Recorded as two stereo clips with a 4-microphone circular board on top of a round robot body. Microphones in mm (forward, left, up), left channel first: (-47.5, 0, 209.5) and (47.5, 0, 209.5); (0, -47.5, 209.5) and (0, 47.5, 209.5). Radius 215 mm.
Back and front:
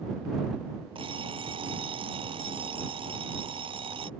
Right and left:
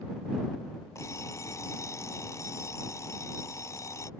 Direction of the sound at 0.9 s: 30° right.